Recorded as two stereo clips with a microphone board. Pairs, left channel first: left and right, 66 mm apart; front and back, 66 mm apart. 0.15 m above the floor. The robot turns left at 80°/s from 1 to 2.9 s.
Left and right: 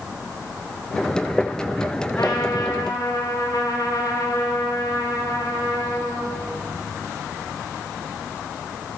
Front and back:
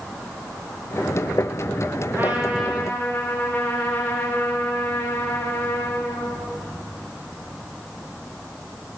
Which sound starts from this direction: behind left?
A trumpet, at 2.2 s.